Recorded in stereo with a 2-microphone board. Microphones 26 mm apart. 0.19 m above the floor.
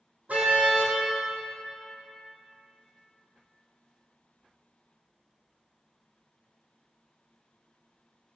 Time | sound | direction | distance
0.3 | a car horn | 80° right | 4 m